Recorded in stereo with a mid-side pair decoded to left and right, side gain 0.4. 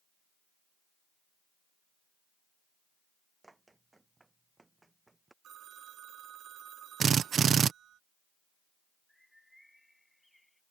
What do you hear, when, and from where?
3.4 s running footsteps: 20° right
5.4 s a phone ringing: 70° right
7.0 s a drill: 55° right
9.1 s a bird: 5° left